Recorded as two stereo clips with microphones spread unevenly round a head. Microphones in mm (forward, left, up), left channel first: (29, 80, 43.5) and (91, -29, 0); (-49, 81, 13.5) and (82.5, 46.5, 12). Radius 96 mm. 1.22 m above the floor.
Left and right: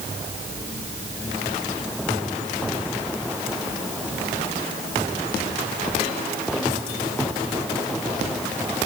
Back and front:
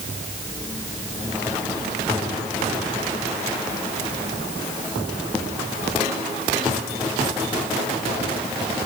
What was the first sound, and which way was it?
Only background noise.